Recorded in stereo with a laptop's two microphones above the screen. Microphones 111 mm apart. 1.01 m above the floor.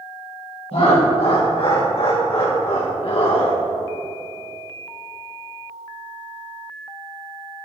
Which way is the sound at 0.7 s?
60° left (ahead or behind).